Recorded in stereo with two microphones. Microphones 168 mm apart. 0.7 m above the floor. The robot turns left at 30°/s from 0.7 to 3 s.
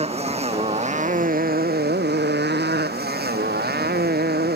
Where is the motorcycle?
40° right; by 4.6 s 110° right.